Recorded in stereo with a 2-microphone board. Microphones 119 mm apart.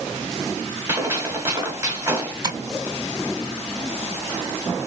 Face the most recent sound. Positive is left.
turn(degrees=-35)  # may be behind; listen again after turning